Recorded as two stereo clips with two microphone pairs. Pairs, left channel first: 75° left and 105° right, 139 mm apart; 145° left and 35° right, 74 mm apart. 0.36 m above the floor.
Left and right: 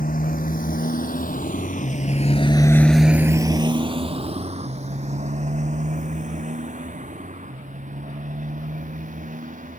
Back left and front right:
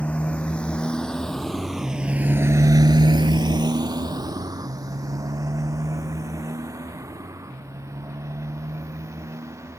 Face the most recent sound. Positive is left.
turn(degrees=-85)